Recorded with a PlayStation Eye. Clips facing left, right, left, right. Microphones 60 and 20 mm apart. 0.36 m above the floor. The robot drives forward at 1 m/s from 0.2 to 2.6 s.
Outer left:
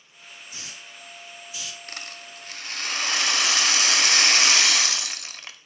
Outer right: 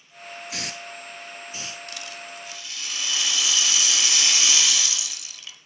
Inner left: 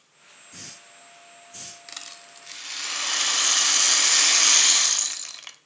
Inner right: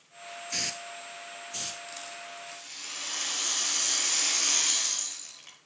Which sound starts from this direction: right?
A hiss, at 0.5 s.